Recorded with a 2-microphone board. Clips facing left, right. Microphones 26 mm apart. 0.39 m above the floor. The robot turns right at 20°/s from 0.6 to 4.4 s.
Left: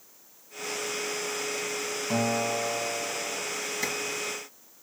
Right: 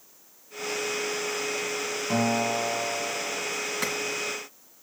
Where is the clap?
75° right (ahead or behind), 3.5 m.